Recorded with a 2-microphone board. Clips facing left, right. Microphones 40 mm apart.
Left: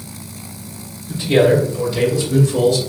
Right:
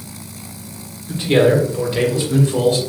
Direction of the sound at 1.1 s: 35° right (ahead or behind).